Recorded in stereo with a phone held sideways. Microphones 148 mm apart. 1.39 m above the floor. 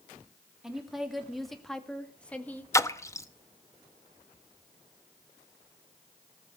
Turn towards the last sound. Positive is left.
turn(degrees=20)  # may be behind; listen again after turning